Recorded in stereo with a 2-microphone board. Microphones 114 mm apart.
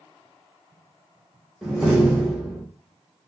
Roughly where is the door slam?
Centre.